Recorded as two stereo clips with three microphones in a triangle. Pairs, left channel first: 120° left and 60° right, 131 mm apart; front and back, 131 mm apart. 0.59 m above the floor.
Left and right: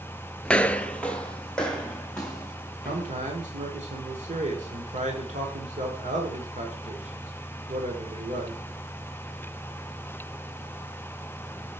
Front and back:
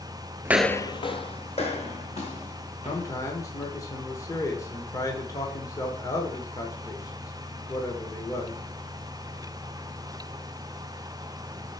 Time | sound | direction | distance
0.5 | footsteps | 175° right | 0.5 m
2.9 | a man speaking | 60° right | 1.5 m